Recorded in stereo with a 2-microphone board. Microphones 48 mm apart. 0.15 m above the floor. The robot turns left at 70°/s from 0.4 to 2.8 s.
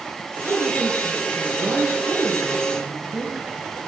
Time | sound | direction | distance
0.4 | a woman speaking | 45° right | 3.5 m